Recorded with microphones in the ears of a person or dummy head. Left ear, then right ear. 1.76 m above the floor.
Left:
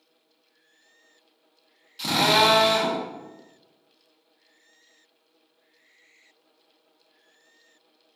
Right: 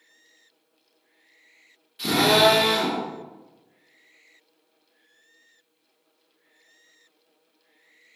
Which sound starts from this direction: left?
A drill, at 2.0 s.